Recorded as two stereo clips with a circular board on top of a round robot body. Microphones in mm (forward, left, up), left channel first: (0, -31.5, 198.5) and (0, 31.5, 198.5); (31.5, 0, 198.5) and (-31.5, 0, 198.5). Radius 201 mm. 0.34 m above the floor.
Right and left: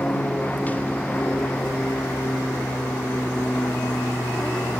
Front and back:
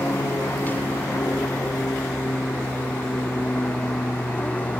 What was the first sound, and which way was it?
An aircraft, 45° right.